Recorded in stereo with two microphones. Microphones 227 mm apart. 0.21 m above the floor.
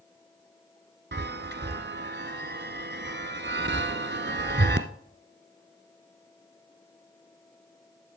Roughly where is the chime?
Right.